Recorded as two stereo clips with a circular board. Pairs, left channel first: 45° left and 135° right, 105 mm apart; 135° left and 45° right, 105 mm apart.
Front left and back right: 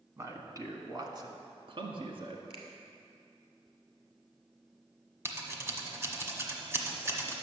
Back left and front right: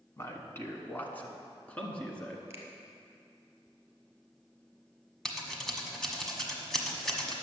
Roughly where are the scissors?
Behind right.